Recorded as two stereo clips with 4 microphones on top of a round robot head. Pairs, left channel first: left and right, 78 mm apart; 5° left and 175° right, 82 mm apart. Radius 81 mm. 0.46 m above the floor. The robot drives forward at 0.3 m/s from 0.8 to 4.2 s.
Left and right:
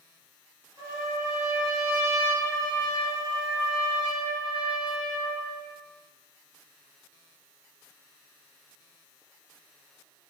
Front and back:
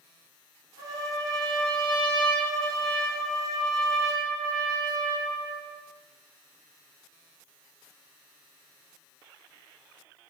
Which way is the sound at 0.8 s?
30° right.